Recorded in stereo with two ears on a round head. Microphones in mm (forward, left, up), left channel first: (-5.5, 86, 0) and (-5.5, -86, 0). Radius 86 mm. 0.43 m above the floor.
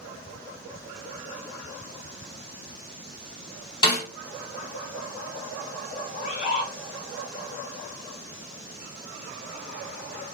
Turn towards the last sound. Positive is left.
turn(degrees=45)  # may be behind; listen again after turning